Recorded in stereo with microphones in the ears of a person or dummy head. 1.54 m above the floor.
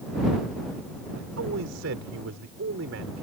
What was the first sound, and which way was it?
A man speaking, 70° right (ahead or behind).